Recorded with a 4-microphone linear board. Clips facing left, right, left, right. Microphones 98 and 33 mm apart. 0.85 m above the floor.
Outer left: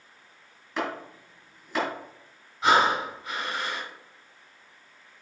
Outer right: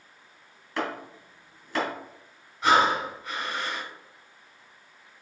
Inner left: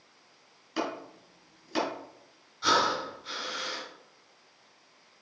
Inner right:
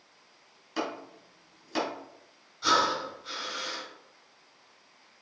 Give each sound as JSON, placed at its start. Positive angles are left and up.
{"t": 0.8, "sound": "chopping", "side_deg": 0, "distance_m": 3.5}
{"t": 2.6, "sound": "breathing", "side_deg": 0, "distance_m": 3.0}